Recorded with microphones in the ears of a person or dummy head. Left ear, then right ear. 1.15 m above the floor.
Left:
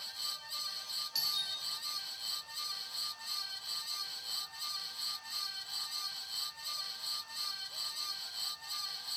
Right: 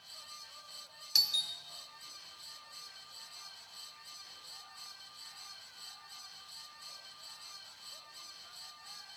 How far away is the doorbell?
About 0.6 m.